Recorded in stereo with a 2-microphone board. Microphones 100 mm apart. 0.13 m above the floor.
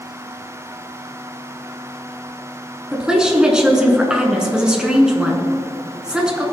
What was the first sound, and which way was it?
A woman speaking, 10° right (ahead or behind).